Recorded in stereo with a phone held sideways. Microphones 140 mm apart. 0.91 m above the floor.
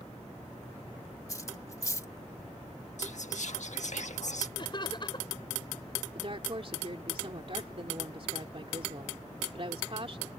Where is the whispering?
65° left (ahead or behind).